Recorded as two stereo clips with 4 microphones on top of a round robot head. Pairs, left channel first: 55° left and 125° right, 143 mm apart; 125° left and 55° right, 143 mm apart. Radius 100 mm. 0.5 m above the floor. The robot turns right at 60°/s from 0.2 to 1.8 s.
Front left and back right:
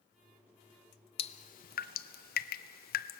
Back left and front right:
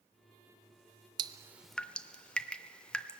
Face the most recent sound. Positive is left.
turn(degrees=40)